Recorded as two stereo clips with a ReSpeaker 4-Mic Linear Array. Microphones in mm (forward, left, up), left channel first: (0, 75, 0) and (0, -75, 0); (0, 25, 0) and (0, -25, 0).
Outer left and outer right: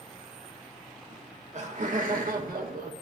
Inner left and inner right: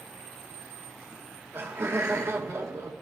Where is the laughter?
45° right (ahead or behind), 2 m; by 2.9 s 70° right (ahead or behind), 1.8 m.